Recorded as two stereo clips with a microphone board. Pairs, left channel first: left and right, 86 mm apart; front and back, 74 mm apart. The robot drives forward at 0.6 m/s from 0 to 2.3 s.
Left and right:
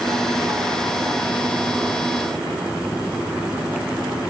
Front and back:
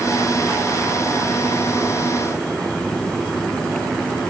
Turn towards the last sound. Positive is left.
No sound to turn to.